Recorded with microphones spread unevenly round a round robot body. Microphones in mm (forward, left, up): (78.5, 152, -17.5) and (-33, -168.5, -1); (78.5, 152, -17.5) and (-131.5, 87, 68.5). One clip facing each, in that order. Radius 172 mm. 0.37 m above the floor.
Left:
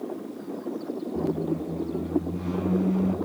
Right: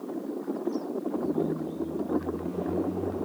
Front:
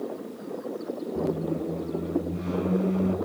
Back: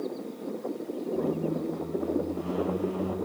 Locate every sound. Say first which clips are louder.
1.1 s a squeak: left 2 dB, front 1 dB; 85° left, 0.9 m